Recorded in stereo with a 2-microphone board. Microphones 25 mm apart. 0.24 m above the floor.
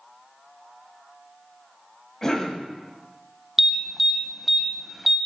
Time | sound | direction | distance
2.2 | a cough | 15° left (ahead or behind) | 1.3 m
3.6 | an alarm | 10° right (ahead or behind) | 0.7 m